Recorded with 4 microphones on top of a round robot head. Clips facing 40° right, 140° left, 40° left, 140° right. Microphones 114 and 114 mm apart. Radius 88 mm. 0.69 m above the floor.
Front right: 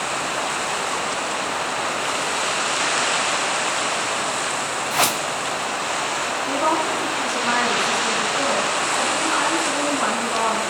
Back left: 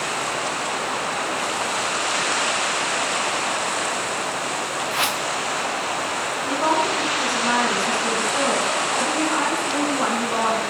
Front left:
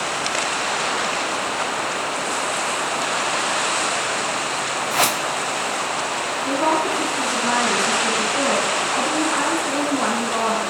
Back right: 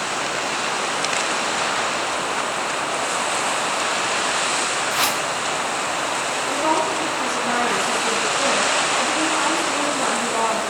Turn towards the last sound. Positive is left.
turn(degrees=65)